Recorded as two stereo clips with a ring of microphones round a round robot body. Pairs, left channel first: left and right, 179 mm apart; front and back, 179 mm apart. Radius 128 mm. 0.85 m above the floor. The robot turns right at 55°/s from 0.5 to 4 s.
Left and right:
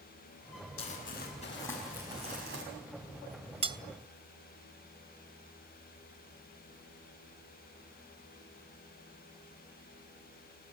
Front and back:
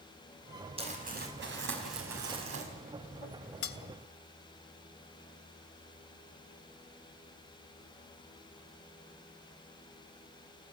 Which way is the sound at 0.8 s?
120° left.